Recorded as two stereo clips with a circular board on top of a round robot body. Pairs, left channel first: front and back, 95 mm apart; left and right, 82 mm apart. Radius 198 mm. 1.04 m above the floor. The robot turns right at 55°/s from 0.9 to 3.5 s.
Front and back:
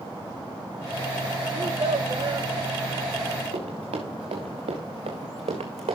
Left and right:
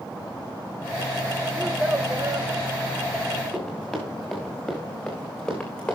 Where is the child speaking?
Straight behind, 1.0 m; by 2.5 s 125° right, 1.0 m.